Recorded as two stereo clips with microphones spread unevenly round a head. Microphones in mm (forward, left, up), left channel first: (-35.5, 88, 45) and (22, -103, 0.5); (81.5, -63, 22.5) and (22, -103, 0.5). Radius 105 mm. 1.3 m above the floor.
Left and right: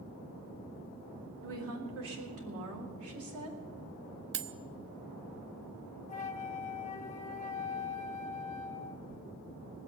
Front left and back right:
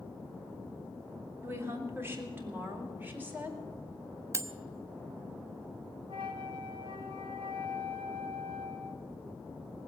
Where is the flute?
150° left, 0.7 m.